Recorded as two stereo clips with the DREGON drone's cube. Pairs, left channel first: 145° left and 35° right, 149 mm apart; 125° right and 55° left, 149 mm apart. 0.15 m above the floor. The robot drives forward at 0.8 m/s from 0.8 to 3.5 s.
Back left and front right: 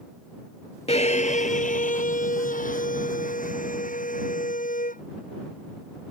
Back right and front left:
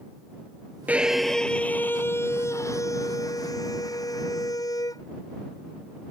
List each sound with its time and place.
0.9 s a violin: 130° left; by 5.0 s 170° left